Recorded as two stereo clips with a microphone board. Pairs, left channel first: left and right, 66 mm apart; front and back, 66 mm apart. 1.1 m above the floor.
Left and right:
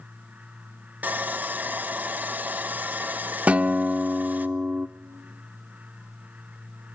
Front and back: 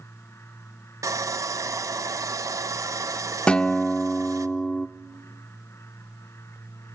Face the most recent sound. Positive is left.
turn(degrees=-55)